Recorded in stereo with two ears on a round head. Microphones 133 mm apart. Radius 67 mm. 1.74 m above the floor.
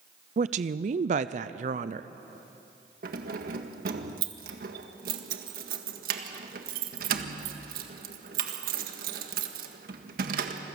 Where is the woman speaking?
50° right (ahead or behind), 0.5 m.